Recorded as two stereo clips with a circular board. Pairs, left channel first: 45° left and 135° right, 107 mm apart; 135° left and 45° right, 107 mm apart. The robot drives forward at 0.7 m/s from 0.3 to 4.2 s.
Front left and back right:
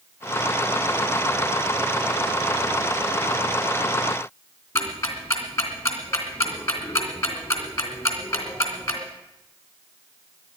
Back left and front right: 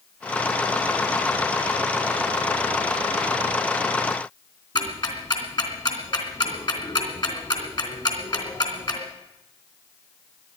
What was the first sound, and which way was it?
Ticking, 105° left.